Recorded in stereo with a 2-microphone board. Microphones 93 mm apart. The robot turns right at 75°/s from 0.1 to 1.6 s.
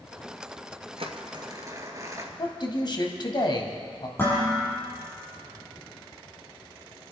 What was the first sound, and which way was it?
Crumpling, 80° right.